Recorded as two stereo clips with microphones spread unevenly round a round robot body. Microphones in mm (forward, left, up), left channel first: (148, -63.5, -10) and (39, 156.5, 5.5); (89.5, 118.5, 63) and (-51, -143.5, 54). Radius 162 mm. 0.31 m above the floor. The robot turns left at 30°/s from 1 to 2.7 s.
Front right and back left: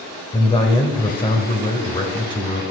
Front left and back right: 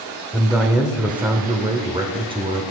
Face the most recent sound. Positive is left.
turn(degrees=-90)